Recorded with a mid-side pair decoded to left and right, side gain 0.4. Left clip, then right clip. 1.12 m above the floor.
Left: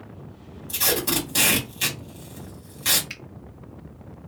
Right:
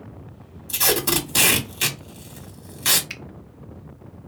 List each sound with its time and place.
0.7 s tape being pulled: 40° right, 1.5 m
3.1 s a finger snap: 20° right, 0.7 m